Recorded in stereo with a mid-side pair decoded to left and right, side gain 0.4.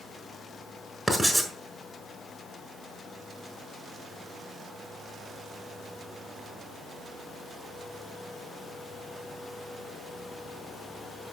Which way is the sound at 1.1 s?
10° right.